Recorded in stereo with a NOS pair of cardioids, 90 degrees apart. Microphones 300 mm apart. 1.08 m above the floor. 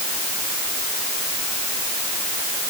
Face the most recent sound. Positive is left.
No sound to turn to.